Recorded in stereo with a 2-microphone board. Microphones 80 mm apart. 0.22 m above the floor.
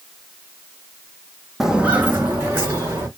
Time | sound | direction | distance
1.6 | footsteps | centre (ahead or behind) | 0.5 m